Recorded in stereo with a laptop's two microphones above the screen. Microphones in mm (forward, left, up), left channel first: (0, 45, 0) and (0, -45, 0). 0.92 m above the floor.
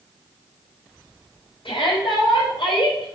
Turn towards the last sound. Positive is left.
turn(degrees=65)  # may be behind; listen again after turning